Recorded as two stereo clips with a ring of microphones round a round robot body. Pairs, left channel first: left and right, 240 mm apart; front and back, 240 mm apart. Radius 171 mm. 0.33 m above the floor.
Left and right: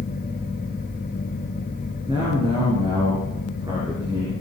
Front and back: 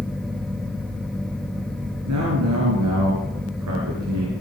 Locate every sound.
2.1 s a man speaking: 165° right, 7 m; by 4.3 s 170° right, 6 m